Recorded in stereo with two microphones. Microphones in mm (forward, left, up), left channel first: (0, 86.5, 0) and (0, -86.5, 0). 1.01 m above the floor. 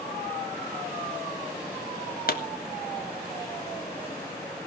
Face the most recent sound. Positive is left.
turn(degrees=60)  # may be behind; listen again after turning